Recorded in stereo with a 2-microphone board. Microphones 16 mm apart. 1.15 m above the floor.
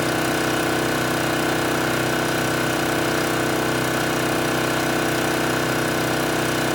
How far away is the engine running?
About 0.7 m.